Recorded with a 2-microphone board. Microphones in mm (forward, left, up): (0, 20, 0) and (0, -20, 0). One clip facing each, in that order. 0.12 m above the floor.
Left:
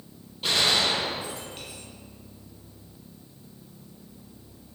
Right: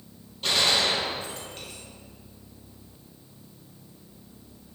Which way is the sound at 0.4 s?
5° left (ahead or behind).